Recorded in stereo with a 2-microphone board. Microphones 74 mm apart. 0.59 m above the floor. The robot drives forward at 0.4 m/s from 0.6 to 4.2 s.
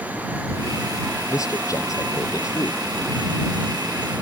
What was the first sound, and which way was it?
A man speaking, 45° left (ahead or behind).